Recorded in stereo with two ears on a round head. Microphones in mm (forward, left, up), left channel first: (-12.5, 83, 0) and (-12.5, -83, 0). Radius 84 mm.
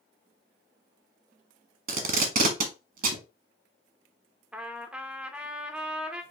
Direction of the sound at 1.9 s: 55° right (ahead or behind).